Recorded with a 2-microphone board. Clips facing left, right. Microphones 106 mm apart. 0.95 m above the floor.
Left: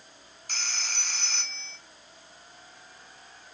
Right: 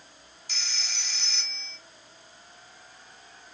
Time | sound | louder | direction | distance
0.5 | a phone ringing | left 3 dB | 50° left (ahead or behind) | 1.4 m